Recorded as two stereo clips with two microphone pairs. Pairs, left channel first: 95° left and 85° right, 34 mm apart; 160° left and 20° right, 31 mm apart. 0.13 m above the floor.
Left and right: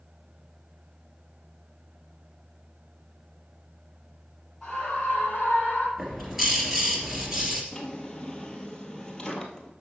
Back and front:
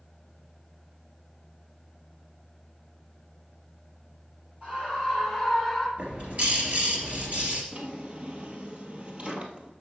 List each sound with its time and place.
4.6 s a scream: 20° left, 2.5 m; by 5.9 s 60° left, 3.5 m
6.0 s a bird: straight ahead, 3 m
7.7 s a drawer: 30° left, 1.4 m